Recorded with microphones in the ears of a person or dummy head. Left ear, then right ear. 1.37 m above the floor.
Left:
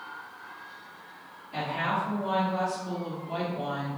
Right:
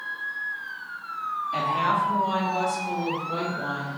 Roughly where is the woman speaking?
Centre.